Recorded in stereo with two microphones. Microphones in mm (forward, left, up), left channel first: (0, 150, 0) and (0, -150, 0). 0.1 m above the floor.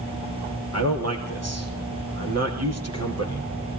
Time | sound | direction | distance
0.7 | a man speaking | 55° right (ahead or behind) | 4.5 m